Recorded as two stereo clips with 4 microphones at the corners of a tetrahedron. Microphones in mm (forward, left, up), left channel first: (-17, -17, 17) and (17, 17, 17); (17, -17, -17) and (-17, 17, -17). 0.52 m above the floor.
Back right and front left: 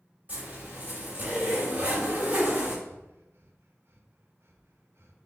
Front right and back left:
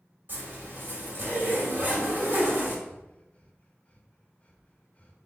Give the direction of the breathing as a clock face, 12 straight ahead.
12 o'clock.